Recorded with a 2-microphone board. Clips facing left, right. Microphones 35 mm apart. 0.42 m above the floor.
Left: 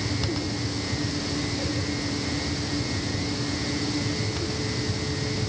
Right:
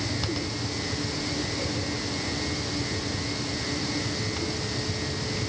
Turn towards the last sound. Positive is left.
No sound to turn to.